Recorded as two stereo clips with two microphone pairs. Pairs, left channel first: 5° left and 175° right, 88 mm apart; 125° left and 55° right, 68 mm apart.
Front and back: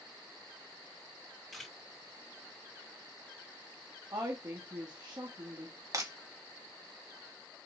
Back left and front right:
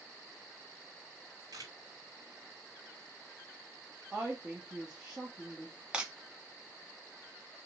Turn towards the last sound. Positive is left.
turn(degrees=-130)